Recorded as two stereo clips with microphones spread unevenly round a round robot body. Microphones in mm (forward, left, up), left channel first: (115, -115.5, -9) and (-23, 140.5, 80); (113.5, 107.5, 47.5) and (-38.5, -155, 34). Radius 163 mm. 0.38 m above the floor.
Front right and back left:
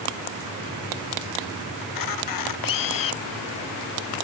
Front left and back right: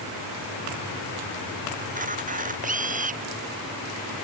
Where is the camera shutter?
55° right.